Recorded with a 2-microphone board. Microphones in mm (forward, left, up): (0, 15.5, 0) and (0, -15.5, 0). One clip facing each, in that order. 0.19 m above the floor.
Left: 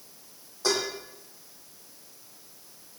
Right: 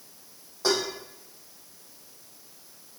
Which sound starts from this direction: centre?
Dishes clattering, at 0.6 s.